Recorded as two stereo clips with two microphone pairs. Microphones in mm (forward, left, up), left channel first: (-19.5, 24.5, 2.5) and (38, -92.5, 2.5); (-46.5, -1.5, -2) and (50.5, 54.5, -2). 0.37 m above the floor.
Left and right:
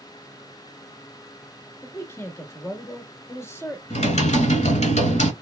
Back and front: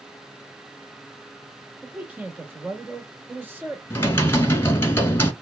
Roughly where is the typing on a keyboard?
Behind left.